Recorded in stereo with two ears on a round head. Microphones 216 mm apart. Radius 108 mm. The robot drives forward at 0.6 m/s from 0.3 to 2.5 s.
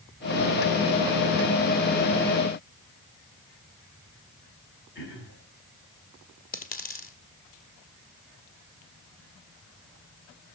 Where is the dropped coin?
35° left (ahead or behind), 1.5 m.